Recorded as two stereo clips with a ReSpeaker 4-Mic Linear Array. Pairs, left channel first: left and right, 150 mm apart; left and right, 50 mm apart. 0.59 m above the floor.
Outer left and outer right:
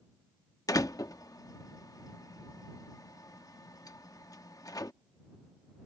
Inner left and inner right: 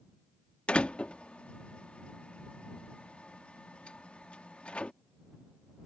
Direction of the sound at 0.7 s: 25° left (ahead or behind).